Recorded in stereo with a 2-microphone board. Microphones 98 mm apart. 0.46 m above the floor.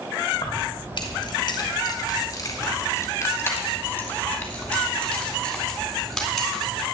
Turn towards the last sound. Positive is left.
turn(degrees=0)  # may be behind; listen again after turning